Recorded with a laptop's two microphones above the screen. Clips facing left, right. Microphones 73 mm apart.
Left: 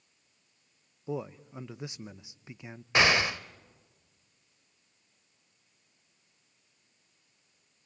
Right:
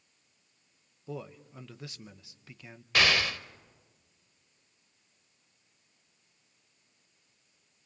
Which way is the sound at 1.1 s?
20° left (ahead or behind).